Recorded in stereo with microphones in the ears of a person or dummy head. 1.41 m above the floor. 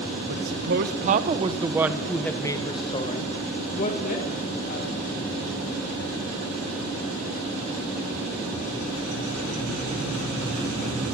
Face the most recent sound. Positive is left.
turn(degrees=55)  # may be behind; listen again after turning